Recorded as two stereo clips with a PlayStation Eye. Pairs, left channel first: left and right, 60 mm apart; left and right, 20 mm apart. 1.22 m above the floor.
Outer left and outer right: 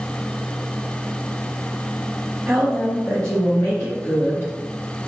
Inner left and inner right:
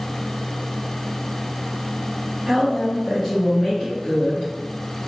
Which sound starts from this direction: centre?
A woman speaking, at 2.5 s.